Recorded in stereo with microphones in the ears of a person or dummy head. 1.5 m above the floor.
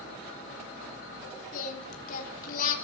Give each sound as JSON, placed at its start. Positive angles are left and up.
{"t": 1.5, "sound": "singing", "side_deg": 45, "distance_m": 3.5}